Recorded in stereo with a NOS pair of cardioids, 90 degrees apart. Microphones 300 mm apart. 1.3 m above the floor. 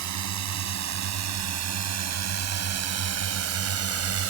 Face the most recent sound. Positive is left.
turn(degrees=-50)